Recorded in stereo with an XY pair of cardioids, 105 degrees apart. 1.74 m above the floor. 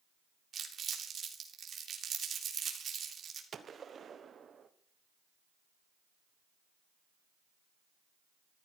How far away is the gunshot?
About 1.3 m.